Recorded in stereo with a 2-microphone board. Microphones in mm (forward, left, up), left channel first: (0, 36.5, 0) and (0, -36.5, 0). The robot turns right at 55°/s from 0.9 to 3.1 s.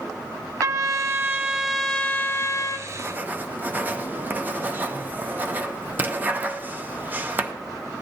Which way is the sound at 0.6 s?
50° right.